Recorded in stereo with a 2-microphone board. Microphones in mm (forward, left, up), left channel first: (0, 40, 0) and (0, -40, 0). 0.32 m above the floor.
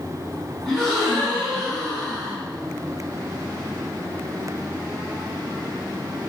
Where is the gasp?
5° left (ahead or behind), 1.3 m.